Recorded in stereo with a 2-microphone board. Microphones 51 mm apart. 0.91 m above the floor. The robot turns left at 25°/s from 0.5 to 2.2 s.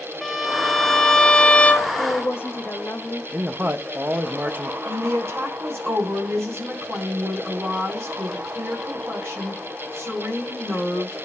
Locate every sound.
0.2 s a violin: straight behind, 1.0 m; by 1.9 s 145° left, 1.0 m
2.0 s a woman speaking: 45° left (ahead or behind), 1.7 m; by 3.2 s 50° left (ahead or behind), 1.7 m
3.3 s a man speaking: 40° right (ahead or behind), 0.7 m
4.8 s a woman speaking: 60° right (ahead or behind), 7 m